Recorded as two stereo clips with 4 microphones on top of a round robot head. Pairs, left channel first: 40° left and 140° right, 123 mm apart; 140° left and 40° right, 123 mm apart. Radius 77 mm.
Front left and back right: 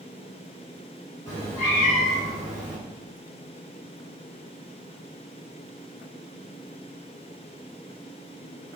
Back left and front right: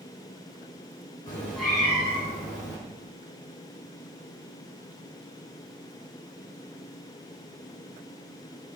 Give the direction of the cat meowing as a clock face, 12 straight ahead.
9 o'clock.